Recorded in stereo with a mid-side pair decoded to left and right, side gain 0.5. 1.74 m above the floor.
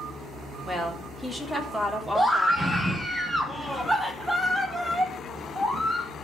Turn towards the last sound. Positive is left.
turn(degrees=0)